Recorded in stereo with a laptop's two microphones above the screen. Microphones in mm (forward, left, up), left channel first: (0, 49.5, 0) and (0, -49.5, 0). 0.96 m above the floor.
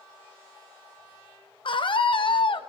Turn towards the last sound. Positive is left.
turn(degrees=55)  # may be behind; listen again after turning